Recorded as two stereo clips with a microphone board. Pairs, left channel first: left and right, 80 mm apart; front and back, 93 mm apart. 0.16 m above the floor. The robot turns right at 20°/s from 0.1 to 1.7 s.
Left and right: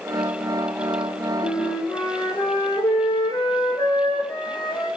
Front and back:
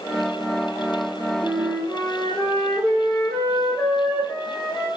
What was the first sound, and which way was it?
A flute, 75° left.